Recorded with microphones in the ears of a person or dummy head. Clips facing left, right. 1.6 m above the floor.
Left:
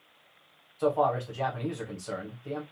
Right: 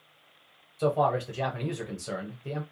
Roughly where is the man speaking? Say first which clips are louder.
Even; right.